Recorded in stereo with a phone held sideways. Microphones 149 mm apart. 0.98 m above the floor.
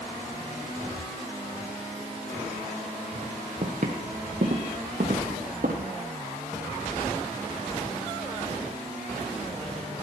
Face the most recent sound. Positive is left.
turn(degrees=-65)  # may be behind; listen again after turning